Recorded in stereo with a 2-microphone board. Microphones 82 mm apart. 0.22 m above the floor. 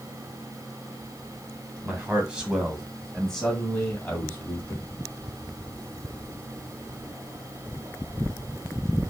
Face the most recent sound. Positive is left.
turn(degrees=35)  # may be behind; listen again after turning